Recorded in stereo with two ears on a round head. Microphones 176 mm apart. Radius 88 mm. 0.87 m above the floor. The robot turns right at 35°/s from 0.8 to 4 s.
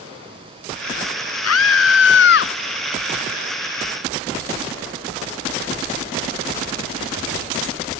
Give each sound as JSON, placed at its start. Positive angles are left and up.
{"t": 1.4, "sound": "a scream", "azimuth_deg": 90}